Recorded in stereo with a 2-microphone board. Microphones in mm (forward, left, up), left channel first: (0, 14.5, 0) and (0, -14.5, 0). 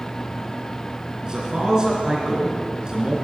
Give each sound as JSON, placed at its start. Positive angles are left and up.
{"t": 1.2, "sound": "a man speaking", "side_deg": -25, "distance_m": 3.0}